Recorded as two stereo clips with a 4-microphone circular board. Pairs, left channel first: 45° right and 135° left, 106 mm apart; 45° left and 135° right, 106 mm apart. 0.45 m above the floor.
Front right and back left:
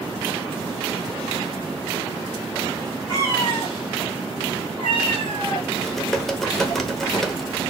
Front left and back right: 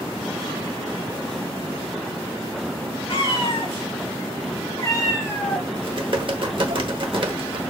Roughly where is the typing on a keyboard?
Behind right.